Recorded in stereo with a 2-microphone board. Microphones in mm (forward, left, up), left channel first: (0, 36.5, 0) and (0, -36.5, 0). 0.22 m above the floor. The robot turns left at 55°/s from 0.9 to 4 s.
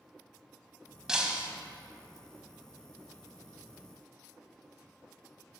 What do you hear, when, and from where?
1.1 s breaking glass: 10° right (ahead or behind), 0.9 m; by 1.5 s 20° right (ahead or behind), 0.9 m